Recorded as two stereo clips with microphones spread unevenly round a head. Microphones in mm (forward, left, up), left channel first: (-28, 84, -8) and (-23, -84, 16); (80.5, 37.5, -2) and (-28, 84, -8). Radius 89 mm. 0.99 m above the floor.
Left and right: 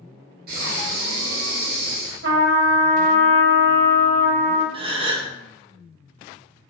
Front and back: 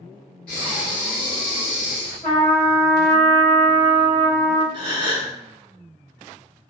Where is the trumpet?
105° right, 0.9 m.